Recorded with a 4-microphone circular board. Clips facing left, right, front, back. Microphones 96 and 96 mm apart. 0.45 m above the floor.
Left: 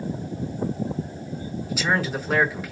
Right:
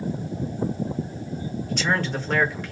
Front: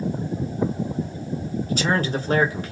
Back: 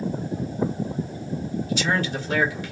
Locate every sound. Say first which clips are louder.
1.7 s a man speaking: left 1 dB, front 3 dB; 10° left, 1.5 m